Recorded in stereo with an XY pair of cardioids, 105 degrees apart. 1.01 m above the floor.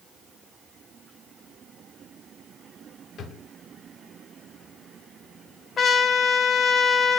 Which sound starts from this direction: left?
A drawer, at 3.2 s.